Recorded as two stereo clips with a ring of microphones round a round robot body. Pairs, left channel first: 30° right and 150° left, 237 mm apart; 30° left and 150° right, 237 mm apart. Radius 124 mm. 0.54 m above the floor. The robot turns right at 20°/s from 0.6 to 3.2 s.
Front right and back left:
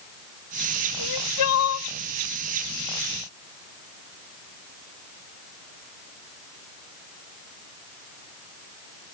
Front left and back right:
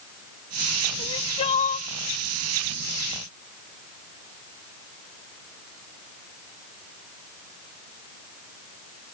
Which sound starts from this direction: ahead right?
Crying, at 1.0 s.